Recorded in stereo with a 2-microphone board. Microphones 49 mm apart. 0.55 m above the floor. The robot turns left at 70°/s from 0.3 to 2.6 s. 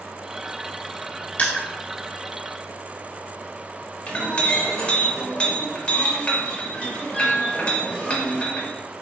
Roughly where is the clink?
Left.